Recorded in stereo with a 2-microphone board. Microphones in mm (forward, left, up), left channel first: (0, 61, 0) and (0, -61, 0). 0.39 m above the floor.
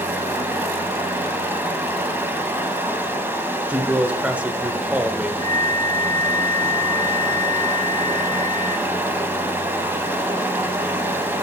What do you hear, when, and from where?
0.0 s running water: 20° right (ahead or behind), 1.0 m
3.7 s a man speaking: 10° right (ahead or behind), 0.8 m
5.4 s a flute: 40° left (ahead or behind), 0.5 m